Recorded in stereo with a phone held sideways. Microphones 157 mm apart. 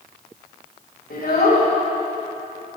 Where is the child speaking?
75° left (ahead or behind), 1.9 m.